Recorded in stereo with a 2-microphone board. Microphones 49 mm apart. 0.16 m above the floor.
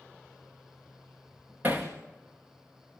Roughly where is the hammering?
Right.